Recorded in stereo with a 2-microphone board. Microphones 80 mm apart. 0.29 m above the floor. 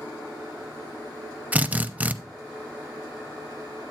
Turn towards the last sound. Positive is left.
turn(degrees=-20)  # may be behind; listen again after turning